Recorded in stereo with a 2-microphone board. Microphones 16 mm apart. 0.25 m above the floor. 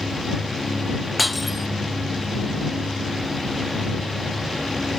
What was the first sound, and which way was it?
Breaking glass, 5° right (ahead or behind).